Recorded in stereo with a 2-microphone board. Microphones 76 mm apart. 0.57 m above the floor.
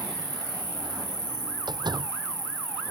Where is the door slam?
65° right (ahead or behind).